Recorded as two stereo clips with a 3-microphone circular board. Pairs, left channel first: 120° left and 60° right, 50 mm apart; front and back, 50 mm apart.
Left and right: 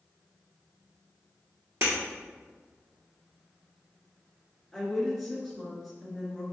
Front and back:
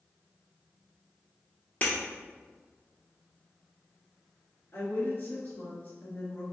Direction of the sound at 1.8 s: 55° right.